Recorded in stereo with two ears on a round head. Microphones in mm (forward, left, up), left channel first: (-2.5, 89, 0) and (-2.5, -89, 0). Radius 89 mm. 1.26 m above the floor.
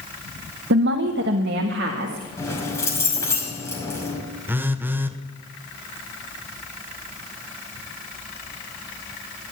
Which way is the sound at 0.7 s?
65° right (ahead or behind).